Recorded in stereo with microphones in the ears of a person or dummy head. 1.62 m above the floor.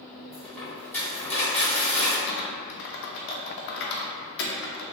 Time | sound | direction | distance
0.3 | a dropped coin | 15° left (ahead or behind) | 1.8 m
2.3 | typing on a keyboard | 60° left (ahead or behind) | 0.6 m